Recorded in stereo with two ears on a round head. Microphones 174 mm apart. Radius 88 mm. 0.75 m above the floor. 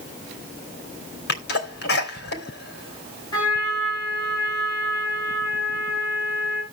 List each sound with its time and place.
1.3 s a sneeze: 50° left (ahead or behind), 3 m
3.3 s a trumpet: 20° left (ahead or behind), 7 m